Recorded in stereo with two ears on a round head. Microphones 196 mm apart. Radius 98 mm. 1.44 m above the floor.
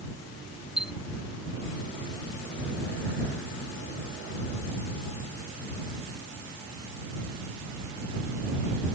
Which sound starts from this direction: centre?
A chime, at 0.8 s.